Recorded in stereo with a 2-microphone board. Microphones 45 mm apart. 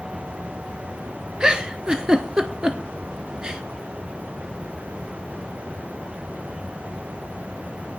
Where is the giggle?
20° right (ahead or behind), 0.9 m.